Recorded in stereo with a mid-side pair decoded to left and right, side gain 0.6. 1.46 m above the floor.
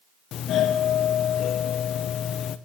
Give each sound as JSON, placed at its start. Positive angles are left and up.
{"t": 0.3, "sound": "a doorbell", "azimuth_deg": 55, "distance_m": 0.8}